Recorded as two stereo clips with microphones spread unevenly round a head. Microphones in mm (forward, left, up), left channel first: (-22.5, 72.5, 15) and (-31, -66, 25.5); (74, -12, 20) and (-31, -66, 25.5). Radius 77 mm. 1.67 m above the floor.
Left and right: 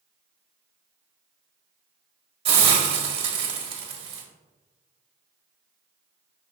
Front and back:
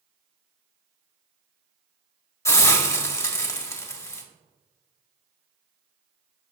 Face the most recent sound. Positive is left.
turn(degrees=-40)